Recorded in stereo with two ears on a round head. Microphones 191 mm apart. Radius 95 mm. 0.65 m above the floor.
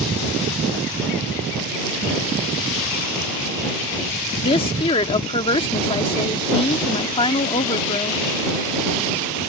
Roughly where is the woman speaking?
Left.